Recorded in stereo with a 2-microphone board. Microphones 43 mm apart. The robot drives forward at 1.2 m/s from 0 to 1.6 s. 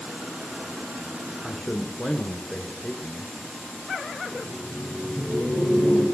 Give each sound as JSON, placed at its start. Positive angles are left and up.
{"t": 1.4, "sound": "a man speaking", "side_deg": 0, "distance_m": 1.1}
{"t": 4.3, "sound": "laughter", "side_deg": -65, "distance_m": 3.5}